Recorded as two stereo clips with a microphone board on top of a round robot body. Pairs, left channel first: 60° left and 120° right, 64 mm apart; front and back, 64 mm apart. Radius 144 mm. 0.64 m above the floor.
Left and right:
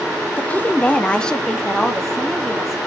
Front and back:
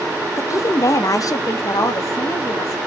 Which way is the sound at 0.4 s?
10° left.